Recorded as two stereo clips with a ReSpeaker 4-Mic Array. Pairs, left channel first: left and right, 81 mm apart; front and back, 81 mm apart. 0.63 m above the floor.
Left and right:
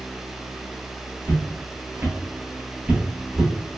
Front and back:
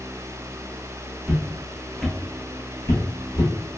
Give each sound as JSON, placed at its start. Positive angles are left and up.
{"t": 1.2, "sound": "footsteps", "azimuth_deg": -135, "distance_m": 0.8}